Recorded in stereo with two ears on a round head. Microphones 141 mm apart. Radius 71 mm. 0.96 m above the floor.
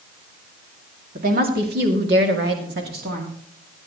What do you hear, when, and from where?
1.1 s a woman speaking: 55° right (ahead or behind), 2.5 m